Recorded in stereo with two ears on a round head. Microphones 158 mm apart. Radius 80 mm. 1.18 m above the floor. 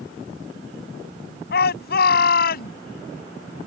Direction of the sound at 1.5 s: 65° left (ahead or behind).